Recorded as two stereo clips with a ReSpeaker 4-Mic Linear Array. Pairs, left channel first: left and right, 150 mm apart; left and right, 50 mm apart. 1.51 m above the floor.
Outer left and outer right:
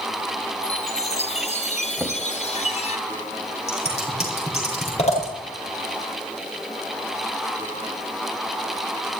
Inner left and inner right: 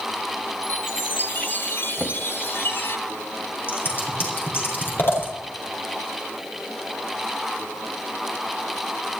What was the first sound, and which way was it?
A chime, 45° left (ahead or behind).